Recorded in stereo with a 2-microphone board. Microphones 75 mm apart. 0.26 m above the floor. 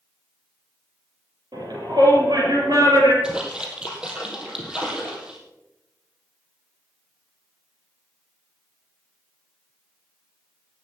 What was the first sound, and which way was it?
A shout, 75° right (ahead or behind).